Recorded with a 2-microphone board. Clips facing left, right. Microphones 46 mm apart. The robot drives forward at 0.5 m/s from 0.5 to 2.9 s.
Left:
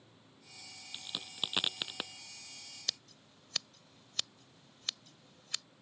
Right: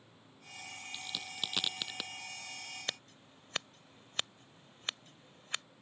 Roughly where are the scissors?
Right.